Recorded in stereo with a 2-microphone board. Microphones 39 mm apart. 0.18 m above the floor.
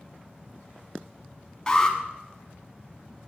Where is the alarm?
15° left (ahead or behind), 1.8 m.